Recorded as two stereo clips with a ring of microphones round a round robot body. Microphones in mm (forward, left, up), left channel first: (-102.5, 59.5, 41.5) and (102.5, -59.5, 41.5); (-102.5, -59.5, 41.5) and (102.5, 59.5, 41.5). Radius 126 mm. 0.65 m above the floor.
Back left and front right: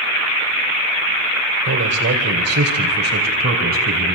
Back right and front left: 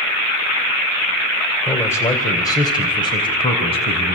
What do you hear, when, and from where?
1.7 s a man speaking: 70° right, 2.5 m; by 4.2 s 85° right, 4.5 m